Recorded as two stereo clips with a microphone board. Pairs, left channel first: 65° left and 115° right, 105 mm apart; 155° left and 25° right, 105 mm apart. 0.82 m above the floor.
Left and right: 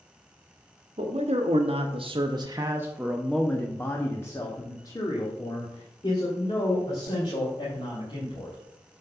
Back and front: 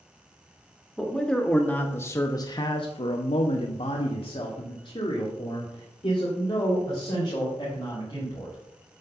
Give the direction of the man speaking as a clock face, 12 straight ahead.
4 o'clock.